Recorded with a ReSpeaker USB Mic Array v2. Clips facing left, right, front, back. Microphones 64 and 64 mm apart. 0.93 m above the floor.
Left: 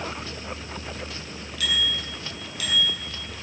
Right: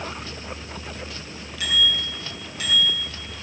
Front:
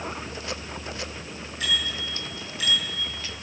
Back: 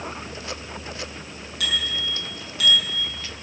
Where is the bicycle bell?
155° right, 6.5 m; by 3.0 s 140° right, 6 m.